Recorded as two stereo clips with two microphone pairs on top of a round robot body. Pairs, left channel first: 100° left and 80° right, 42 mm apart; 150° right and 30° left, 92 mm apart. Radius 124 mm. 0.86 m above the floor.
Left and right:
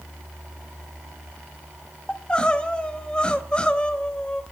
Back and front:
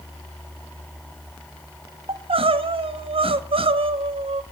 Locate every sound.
2.1 s crying: 35° left, 1.5 m